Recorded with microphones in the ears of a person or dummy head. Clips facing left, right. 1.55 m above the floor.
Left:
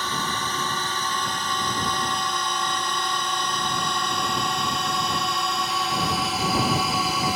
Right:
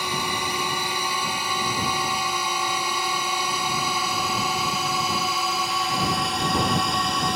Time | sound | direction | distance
0.0 | a drone | 15° right (ahead or behind) | ?